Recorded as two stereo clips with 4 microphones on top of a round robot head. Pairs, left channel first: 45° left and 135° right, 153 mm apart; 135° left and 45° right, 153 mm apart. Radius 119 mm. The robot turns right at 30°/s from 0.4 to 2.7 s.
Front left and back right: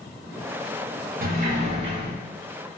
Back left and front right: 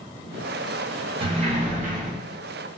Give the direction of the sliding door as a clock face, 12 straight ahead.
3 o'clock.